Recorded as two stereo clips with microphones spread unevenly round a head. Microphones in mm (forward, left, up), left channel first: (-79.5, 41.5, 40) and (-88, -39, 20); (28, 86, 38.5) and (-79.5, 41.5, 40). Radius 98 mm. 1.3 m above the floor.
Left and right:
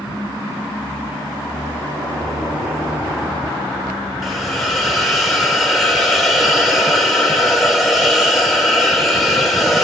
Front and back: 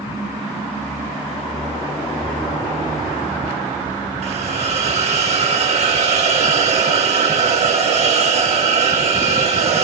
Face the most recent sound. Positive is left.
turn(degrees=175)